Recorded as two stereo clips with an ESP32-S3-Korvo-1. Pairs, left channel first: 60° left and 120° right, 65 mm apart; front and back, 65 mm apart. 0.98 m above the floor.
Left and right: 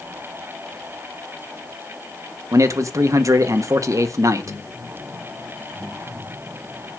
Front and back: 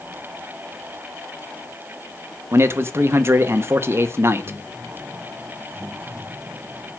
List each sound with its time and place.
2.5 s a man speaking: 140° right, 1.6 m